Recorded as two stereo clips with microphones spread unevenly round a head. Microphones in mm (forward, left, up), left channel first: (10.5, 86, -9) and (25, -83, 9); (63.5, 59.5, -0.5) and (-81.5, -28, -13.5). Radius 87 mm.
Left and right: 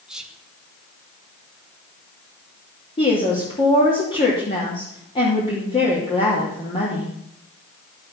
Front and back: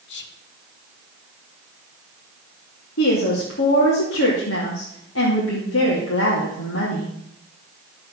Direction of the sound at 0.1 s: 5° left.